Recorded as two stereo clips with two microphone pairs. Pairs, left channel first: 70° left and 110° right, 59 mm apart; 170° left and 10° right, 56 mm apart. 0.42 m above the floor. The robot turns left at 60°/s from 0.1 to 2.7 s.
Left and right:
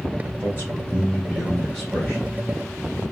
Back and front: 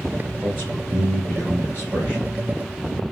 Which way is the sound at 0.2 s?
115° right.